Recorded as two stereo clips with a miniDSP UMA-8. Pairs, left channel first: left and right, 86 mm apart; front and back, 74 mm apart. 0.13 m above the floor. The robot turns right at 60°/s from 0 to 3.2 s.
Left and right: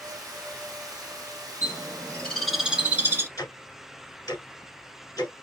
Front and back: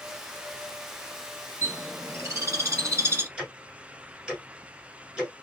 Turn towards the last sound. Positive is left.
turn(degrees=105)